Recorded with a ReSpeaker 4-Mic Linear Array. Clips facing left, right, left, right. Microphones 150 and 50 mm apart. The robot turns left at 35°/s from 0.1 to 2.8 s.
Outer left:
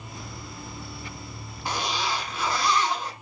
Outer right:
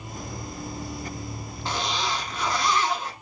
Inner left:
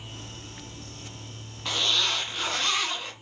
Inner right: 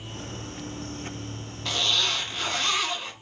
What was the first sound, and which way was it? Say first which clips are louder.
A zipper: even, even; 10° left (ahead or behind).